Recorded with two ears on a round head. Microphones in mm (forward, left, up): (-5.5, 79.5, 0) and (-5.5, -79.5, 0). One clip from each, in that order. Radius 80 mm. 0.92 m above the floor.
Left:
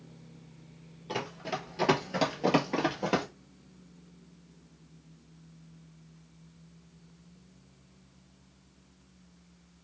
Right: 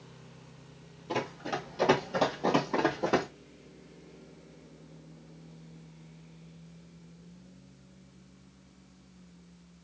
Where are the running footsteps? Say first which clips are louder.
Right 2 dB; 20° left (ahead or behind), 1.4 m; by 3.3 s 50° left (ahead or behind), 1.6 m.